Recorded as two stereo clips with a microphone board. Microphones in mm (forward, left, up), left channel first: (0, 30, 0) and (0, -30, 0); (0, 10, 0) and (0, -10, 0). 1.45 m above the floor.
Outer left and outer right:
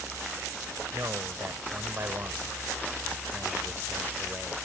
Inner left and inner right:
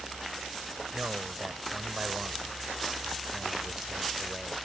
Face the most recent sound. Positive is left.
turn(degrees=-30)  # may be behind; listen again after turning